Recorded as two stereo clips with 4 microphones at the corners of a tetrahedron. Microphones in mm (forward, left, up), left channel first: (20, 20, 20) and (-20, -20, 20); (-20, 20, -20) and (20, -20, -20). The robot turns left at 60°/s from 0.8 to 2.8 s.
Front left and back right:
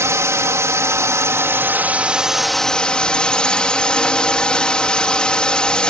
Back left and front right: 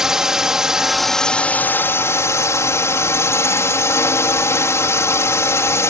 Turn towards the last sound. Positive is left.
turn(degrees=115)